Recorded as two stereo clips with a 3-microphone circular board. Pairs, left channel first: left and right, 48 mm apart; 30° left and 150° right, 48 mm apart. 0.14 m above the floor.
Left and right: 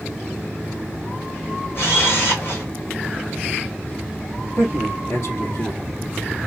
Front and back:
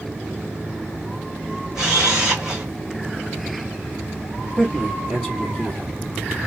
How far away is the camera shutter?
About 2.5 m.